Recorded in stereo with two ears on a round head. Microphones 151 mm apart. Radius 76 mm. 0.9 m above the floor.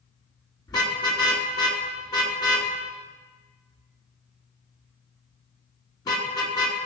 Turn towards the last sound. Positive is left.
turn(degrees=25)  # may be behind; listen again after turning